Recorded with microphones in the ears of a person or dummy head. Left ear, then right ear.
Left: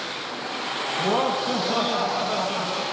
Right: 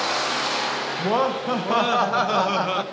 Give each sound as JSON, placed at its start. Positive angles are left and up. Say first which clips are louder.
{"t": 1.0, "sound": "laughter", "louder": "even", "side_deg": -25, "distance_m": 1.3}